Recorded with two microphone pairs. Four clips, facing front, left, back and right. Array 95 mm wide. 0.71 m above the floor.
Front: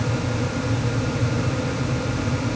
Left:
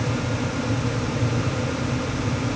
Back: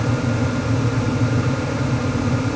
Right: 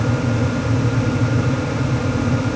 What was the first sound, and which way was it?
Only background noise.